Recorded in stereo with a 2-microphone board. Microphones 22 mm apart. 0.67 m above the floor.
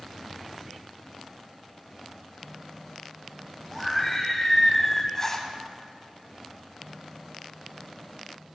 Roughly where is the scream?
Centre.